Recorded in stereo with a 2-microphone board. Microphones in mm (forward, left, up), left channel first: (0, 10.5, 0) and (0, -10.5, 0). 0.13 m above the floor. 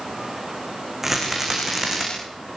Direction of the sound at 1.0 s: 15° right (ahead or behind).